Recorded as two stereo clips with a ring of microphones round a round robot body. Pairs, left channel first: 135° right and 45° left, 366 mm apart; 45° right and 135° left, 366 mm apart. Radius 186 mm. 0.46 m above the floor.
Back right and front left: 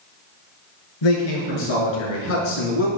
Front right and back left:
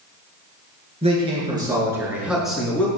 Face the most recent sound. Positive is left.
turn(degrees=-130)